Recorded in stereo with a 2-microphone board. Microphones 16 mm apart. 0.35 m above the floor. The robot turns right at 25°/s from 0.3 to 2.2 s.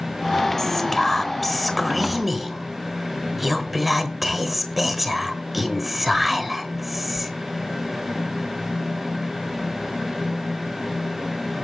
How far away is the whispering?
About 0.9 m.